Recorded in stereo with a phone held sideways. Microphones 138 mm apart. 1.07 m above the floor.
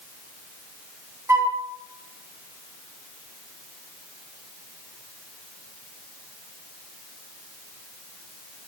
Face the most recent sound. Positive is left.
turn(degrees=-20)  # may be behind; listen again after turning